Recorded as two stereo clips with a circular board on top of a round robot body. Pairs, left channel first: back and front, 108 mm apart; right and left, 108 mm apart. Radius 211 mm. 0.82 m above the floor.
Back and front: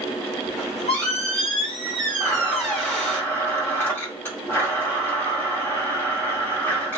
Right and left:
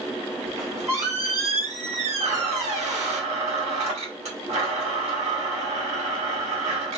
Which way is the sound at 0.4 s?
90° left.